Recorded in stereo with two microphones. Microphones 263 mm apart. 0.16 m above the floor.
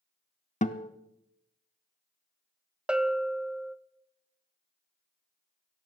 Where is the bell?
5° right (ahead or behind), 0.5 m.